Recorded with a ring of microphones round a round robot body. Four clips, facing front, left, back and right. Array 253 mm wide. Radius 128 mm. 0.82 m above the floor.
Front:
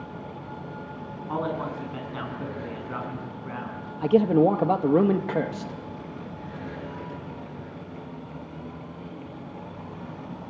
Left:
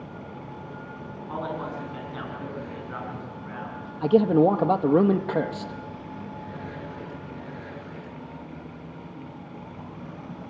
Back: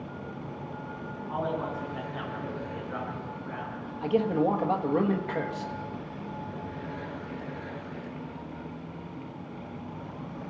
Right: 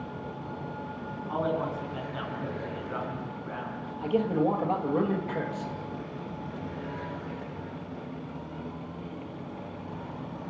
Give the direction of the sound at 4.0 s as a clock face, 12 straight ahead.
10 o'clock.